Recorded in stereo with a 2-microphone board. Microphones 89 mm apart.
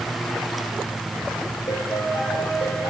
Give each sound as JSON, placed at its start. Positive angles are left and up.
{"t": 1.7, "sound": "a piano", "side_deg": 45, "distance_m": 5.0}